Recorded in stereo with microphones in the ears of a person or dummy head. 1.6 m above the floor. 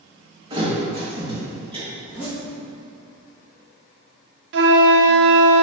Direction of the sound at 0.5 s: 25° right (ahead or behind).